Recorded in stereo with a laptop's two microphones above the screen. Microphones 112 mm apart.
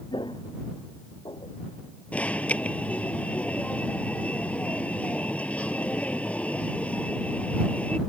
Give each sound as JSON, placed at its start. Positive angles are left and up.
{"t": 0.1, "sound": "footsteps", "side_deg": 45}
{"t": 2.1, "sound": "an alarm", "side_deg": 10}